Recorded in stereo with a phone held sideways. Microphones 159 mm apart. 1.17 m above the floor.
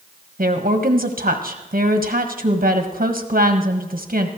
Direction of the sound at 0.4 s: 65° right (ahead or behind).